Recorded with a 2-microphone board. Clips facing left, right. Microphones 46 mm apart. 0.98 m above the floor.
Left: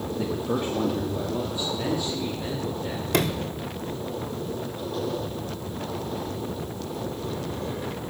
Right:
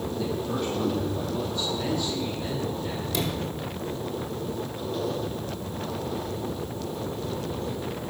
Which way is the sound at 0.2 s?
30° left (ahead or behind).